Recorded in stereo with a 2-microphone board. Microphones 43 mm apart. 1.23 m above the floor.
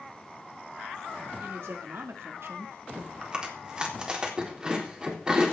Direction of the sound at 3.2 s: 20° right (ahead or behind).